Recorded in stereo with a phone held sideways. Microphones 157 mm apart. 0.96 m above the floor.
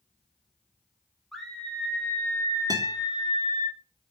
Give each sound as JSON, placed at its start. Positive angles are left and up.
{"t": 1.3, "sound": "a scream", "side_deg": 0, "distance_m": 4.5}
{"t": 2.7, "sound": "a guitar", "side_deg": -25, "distance_m": 3.0}